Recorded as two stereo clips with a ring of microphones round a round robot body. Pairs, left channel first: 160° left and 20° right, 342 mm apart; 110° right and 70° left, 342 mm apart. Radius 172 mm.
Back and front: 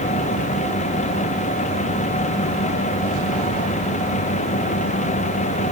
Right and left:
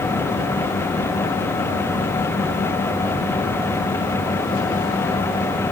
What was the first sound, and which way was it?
Only background noise.